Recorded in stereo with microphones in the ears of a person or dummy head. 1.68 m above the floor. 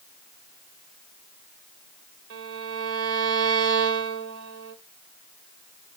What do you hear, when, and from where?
2.3 s a violin: 65° right (ahead or behind), 0.9 m